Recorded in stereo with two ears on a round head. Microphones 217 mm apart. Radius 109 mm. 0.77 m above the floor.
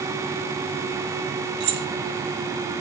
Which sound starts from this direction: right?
Keys jangling, at 1.6 s.